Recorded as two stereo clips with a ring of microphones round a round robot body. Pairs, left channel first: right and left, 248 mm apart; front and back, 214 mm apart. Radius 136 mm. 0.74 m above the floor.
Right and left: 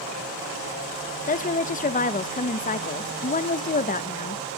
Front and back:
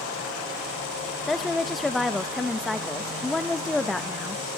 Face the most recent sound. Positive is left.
turn(degrees=-90)